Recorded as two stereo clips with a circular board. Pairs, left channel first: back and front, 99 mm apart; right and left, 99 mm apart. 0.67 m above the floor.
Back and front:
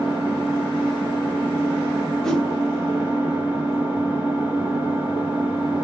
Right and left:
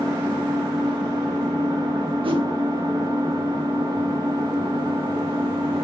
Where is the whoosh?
95° left, 0.5 m.